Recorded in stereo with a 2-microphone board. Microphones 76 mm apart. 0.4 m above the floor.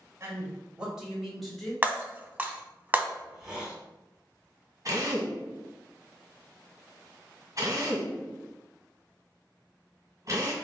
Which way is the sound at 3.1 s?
10° right (ahead or behind).